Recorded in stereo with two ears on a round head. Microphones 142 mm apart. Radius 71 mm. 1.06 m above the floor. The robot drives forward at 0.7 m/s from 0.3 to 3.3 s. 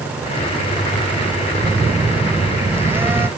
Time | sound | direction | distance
1.6 | a phone buzzing | 20° right (ahead or behind) | ?